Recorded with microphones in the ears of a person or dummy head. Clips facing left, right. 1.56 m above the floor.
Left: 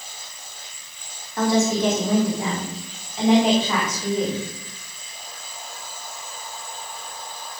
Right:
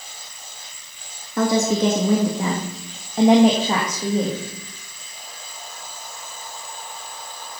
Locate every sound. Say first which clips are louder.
1.4 s a woman speaking: right 1 dB; 70° right (ahead or behind), 2 m; by 4.4 s 20° right (ahead or behind), 1.9 m